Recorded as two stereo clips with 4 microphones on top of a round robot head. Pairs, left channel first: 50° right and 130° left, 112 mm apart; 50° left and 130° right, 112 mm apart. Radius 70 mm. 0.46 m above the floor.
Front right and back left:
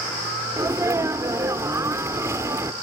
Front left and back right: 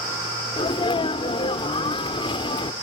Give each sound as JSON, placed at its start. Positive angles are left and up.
{"t": 0.6, "sound": "a sneeze", "azimuth_deg": 70}